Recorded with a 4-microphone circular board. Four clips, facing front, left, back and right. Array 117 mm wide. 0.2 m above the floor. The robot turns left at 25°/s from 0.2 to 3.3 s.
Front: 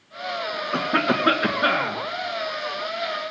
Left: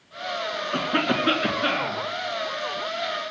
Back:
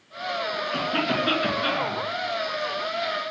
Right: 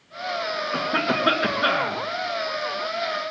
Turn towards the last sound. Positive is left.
turn(degrees=-70)